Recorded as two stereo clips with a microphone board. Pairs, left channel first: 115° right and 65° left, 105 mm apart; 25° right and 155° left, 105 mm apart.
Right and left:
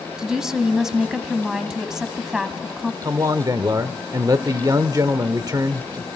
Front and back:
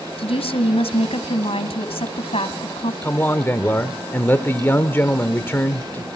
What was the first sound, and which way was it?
A woman speaking, 15° right.